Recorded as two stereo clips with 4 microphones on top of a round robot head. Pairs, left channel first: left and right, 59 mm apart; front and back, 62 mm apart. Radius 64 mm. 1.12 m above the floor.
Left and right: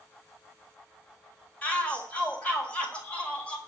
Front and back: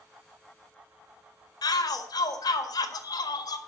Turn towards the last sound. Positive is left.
turn(degrees=15)